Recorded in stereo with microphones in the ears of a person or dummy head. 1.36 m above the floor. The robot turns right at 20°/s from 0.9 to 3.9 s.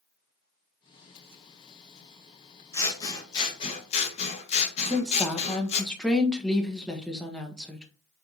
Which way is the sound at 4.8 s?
5° left (ahead or behind).